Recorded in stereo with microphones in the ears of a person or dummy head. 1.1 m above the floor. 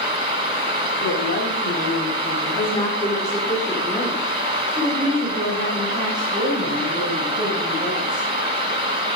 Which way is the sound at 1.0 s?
50° left (ahead or behind).